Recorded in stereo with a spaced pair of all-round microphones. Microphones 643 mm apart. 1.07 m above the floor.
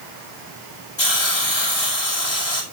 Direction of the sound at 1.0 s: 45° left (ahead or behind).